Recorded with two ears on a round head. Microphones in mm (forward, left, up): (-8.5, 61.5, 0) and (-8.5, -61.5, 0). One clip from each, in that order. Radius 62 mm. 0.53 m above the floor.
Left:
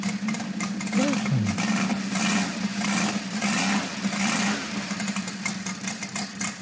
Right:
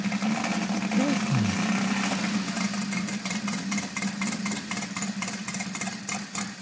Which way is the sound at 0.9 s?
25° left (ahead or behind).